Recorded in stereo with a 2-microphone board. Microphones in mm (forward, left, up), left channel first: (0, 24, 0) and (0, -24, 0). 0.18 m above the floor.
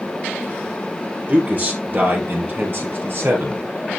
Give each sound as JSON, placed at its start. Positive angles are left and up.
{"t": 1.3, "sound": "a man speaking", "side_deg": -35, "distance_m": 5.0}